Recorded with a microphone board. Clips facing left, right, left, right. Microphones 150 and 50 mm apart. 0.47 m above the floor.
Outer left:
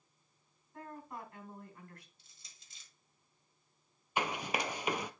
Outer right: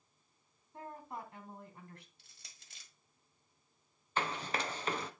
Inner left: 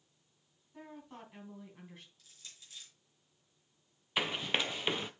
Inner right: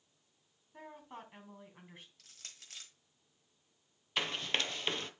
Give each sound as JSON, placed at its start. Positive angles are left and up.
{"t": 0.7, "sound": "a woman speaking", "side_deg": -25, "distance_m": 3.0}
{"t": 2.2, "sound": "crushing", "side_deg": -65, "distance_m": 1.5}
{"t": 4.2, "sound": "running footsteps", "side_deg": 15, "distance_m": 0.5}